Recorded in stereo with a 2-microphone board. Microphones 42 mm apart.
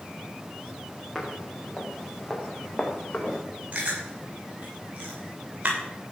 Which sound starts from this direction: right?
Chewing, at 3.7 s.